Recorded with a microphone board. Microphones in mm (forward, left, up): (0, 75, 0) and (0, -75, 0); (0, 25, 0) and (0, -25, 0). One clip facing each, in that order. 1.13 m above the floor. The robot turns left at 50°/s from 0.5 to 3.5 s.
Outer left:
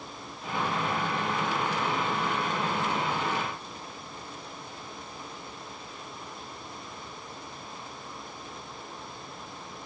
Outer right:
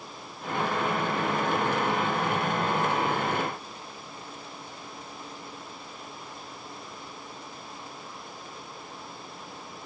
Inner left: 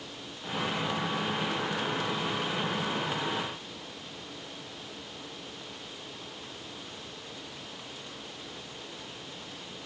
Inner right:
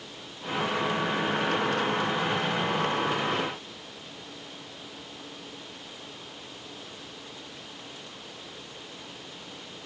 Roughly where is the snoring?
I don't hear snoring.